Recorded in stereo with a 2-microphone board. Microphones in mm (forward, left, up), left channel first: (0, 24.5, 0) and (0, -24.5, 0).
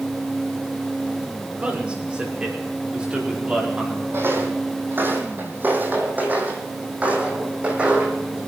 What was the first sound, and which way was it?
A man speaking, 25° right (ahead or behind).